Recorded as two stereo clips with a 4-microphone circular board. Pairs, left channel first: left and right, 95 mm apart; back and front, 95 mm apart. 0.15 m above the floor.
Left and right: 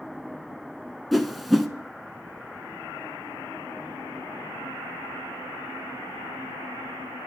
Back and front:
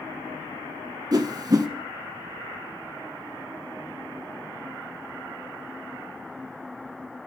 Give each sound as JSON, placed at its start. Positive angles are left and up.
{"t": 1.1, "sound": "a whoosh", "azimuth_deg": 0, "distance_m": 1.2}